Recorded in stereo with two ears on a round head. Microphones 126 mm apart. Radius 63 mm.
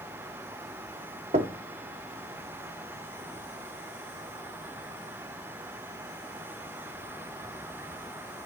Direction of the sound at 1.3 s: 45° right (ahead or behind).